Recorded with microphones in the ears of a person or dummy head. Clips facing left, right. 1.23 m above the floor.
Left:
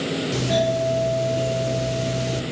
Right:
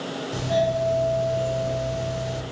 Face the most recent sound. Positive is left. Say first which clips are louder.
# even
turn(degrees=65)  # may be behind; listen again after turning